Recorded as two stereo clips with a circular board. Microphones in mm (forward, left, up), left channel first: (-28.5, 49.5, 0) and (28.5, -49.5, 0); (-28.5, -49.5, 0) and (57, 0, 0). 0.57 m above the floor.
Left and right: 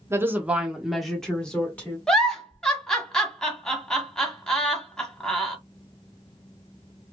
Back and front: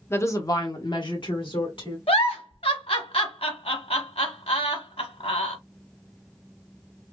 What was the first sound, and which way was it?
A woman speaking, 105° right.